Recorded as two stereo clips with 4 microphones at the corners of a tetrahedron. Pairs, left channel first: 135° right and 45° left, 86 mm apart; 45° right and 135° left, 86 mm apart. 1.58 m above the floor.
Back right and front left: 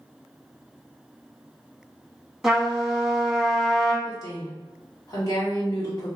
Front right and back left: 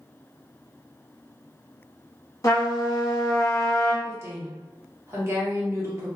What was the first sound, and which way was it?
A trumpet, 45° right.